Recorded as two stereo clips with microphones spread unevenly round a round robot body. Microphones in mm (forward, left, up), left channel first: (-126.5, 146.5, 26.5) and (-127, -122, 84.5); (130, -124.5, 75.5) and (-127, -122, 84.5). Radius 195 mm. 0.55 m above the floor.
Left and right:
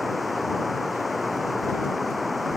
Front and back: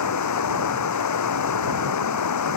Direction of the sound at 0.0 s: Straight ahead.